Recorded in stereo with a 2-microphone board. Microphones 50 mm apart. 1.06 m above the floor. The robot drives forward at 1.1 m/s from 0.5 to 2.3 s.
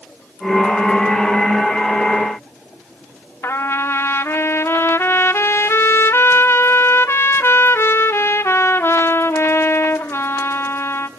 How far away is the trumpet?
About 0.9 m.